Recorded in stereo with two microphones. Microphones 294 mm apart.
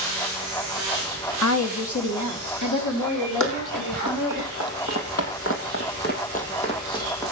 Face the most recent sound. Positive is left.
turn(degrees=10)  # may be behind; listen again after turning